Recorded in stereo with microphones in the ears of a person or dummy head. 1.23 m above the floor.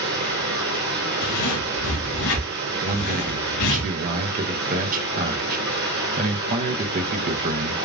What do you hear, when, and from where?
0.0 s running water: 45° right (ahead or behind), 1.6 m
1.2 s a zipper: 80° left, 2 m
2.8 s a man speaking: 45° right (ahead or behind), 0.8 m